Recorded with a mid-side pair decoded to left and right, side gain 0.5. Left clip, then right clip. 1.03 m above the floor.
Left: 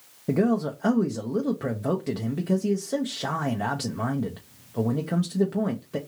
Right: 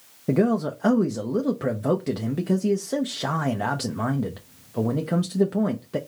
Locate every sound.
0.3 s a man speaking: 15° right, 0.6 m